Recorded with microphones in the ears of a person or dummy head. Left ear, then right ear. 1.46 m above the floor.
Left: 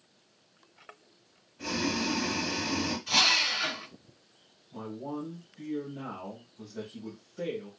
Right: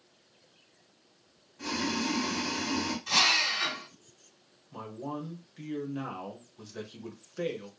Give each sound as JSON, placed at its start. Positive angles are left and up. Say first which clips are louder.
{"t": 1.6, "sound": "boiling", "louder": "left 1 dB", "side_deg": -35, "distance_m": 1.8}
{"t": 3.1, "sound": "a drill", "louder": "left 1 dB", "side_deg": -30, "distance_m": 1.8}
{"t": 4.7, "sound": "a man speaking", "louder": "even", "side_deg": -55, "distance_m": 0.8}